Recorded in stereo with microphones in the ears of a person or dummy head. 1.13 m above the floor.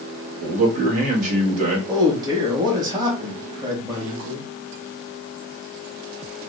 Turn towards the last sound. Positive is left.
turn(degrees=-25)  # may be behind; listen again after turning